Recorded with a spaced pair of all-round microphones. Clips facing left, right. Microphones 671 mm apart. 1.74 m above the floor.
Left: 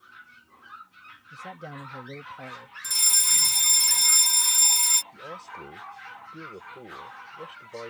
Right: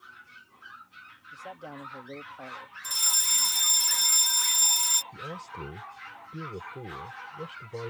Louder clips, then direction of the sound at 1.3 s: Left 1 dB; 50° left (ahead or behind).